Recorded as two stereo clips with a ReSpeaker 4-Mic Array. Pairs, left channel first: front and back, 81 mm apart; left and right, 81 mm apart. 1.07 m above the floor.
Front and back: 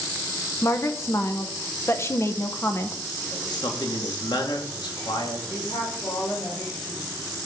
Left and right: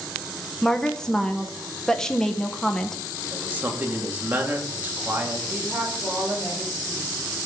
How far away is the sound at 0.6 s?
About 0.8 m.